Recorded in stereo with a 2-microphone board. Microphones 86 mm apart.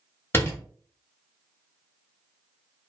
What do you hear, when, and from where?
0.3 s a door slam: 30° left (ahead or behind), 0.9 m